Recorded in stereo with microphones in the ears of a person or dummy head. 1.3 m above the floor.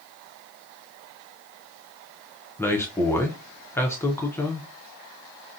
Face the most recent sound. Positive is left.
turn(degrees=5)  # may be behind; listen again after turning